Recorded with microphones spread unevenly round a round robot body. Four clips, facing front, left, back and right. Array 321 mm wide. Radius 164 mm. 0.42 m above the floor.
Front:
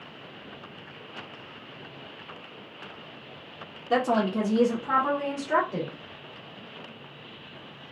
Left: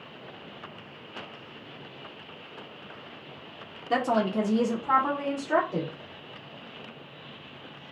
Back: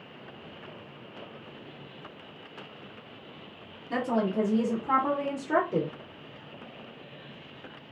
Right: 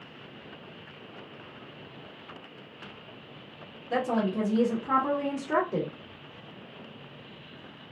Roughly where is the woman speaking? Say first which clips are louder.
Left 2 dB, front 4 dB; ahead left.